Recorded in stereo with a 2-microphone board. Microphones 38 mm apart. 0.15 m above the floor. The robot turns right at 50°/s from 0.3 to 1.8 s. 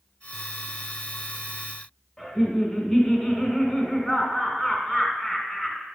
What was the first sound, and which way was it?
Laughter, 15° left (ahead or behind).